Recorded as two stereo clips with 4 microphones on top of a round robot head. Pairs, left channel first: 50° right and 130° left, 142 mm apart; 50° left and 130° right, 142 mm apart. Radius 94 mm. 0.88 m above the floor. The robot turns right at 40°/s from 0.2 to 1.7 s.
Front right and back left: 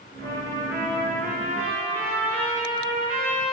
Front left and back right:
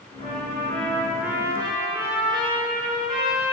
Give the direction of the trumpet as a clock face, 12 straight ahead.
8 o'clock.